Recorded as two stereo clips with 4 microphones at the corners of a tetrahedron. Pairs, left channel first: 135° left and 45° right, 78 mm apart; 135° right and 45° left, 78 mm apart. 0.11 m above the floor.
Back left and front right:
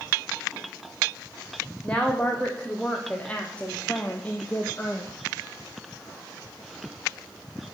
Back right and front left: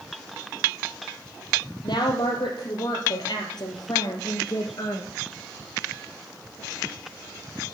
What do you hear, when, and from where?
1.8 s a woman speaking: 145° right, 3.5 m; by 5.1 s 160° right, 1.9 m